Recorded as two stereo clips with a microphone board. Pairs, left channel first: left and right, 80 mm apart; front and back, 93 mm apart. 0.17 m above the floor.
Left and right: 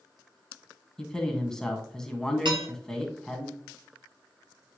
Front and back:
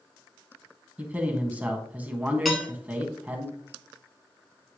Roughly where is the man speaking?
Behind left.